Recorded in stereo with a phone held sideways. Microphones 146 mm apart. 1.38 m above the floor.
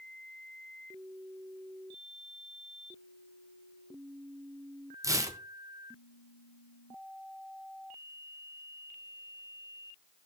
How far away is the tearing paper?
About 0.6 m.